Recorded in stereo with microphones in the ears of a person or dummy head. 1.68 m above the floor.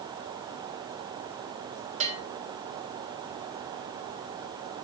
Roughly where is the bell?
Right.